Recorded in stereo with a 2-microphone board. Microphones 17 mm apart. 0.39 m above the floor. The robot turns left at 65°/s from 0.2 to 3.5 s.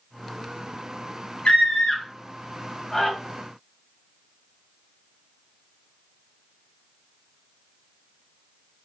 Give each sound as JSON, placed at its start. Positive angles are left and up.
{"t": 1.4, "sound": "a scream", "side_deg": 55, "distance_m": 2.0}